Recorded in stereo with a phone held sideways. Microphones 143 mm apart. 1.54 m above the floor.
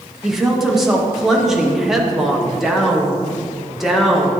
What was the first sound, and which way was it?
A woman speaking, centre (ahead or behind).